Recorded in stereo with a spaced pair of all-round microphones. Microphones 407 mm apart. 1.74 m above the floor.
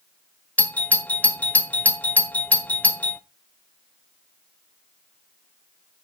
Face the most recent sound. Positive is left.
turn(degrees=5)  # may be behind; listen again after turning